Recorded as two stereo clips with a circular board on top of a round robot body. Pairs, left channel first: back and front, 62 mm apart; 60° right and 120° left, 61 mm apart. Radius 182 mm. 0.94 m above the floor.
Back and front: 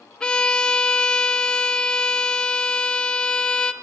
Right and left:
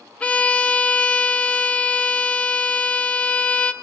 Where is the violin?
115° right, 0.5 m.